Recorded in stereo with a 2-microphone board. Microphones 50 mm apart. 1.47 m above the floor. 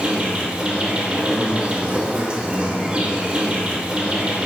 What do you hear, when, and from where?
0.0 s an insect: 20° right (ahead or behind), 1.4 m